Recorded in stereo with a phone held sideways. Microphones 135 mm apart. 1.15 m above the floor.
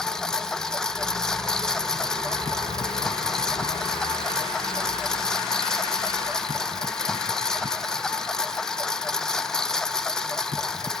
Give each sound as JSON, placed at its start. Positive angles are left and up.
{"t": 0.0, "sound": "a lawn mower", "side_deg": 5}